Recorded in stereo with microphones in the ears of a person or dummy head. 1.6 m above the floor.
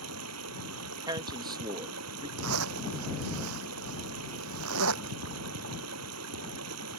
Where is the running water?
85° right.